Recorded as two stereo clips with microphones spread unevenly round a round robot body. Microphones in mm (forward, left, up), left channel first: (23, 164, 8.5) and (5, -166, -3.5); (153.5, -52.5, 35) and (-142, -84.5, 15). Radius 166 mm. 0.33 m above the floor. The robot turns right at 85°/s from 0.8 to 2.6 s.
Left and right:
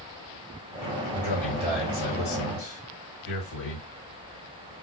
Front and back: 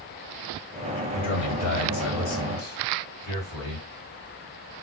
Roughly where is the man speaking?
Ahead right.